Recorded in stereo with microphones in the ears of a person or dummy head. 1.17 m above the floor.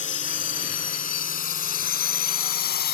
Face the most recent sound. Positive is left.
turn(degrees=50)  # may be behind; listen again after turning